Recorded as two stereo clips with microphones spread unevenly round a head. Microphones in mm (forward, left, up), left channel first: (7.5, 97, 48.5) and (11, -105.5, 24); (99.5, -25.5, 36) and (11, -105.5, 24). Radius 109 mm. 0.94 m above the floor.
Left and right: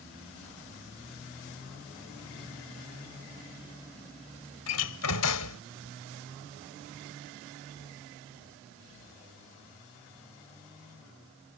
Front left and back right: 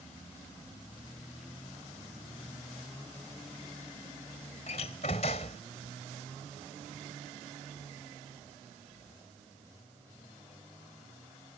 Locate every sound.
4.7 s a door slam: 100° left